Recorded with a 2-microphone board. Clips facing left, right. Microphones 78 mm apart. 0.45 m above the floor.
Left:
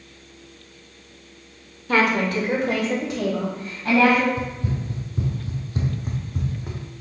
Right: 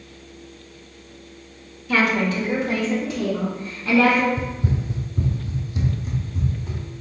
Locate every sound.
1.9 s a woman speaking: 40° left (ahead or behind), 0.9 m; by 4.3 s 65° left (ahead or behind), 2.5 m
4.4 s running footsteps: 30° right (ahead or behind), 0.9 m; by 6.8 s 60° left (ahead or behind), 1.5 m